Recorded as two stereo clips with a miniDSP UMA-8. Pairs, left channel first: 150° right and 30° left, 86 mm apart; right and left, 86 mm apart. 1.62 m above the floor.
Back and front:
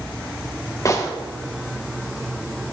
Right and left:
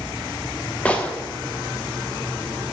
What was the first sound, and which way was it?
A gunshot, 155° right.